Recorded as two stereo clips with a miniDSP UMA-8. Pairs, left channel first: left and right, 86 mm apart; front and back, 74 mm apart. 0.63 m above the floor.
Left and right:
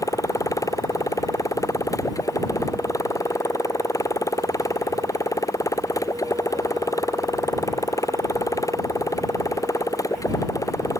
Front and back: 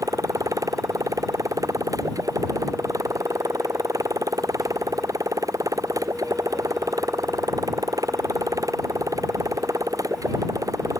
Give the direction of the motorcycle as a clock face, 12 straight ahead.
7 o'clock.